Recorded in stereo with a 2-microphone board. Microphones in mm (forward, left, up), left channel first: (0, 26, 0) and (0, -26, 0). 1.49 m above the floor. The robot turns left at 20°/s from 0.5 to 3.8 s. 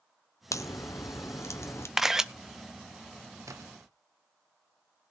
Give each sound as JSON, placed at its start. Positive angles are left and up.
{"t": 0.5, "sound": "a crack", "side_deg": 80, "distance_m": 0.8}
{"t": 2.0, "sound": "a camera shutter", "side_deg": -5, "distance_m": 0.5}
{"t": 3.5, "sound": "a splash", "side_deg": -80, "distance_m": 0.9}